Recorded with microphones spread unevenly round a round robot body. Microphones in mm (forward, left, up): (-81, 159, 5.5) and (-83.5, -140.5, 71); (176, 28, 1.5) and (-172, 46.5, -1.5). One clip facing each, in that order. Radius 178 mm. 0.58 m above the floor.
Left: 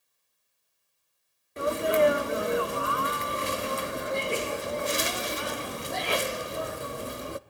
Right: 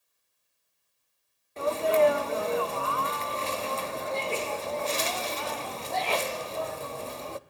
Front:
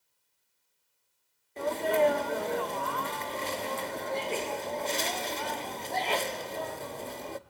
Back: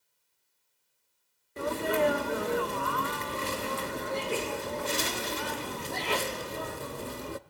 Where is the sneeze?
120° left, 0.6 m.